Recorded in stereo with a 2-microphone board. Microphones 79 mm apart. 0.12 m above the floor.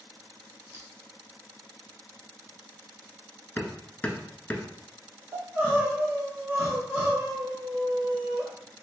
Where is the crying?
15° right (ahead or behind), 1.3 m.